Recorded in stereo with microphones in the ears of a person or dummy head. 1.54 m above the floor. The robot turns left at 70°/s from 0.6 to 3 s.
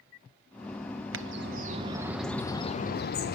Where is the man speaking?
No man speaking in this recording.